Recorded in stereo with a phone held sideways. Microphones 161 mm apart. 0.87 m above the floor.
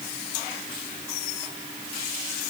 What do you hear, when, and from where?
Only background noise.